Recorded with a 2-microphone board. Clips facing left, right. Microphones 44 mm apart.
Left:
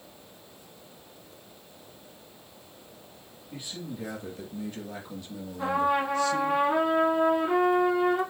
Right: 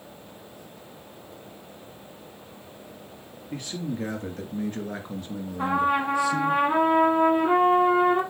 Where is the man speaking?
65° right (ahead or behind), 3 m; by 6.6 s 5° right (ahead or behind), 1.7 m.